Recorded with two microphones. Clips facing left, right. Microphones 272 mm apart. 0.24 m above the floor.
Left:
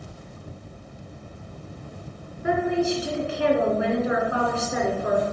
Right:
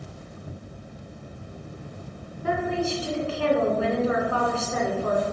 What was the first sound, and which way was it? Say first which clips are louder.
A woman speaking: left 4 dB; 15° left (ahead or behind).